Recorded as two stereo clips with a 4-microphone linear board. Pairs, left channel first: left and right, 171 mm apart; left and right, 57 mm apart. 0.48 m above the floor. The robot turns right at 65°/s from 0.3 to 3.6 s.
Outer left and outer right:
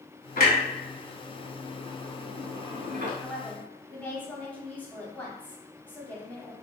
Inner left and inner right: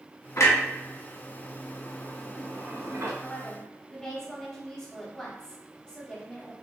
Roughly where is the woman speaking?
Centre.